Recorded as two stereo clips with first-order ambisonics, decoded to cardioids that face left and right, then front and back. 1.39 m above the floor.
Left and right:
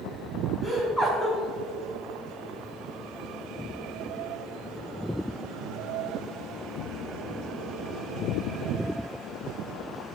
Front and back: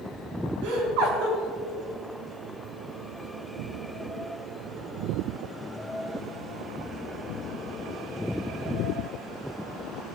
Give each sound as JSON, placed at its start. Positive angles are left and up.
{"t": 0.6, "sound": "laughter", "azimuth_deg": 175, "distance_m": 3.5}